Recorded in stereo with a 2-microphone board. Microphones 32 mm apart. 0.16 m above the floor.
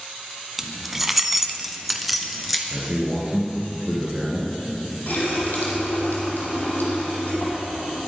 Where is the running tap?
70° left (ahead or behind), 4 m.